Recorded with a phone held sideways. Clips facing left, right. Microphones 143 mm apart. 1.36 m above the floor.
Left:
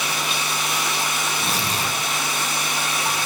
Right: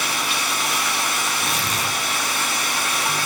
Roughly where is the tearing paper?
Left.